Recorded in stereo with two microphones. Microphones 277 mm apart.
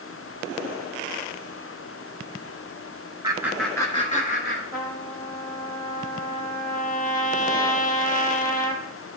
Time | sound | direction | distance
3.2 | laughter | 15° right (ahead or behind) | 1.1 m
4.7 | a trumpet | 30° left (ahead or behind) | 1.6 m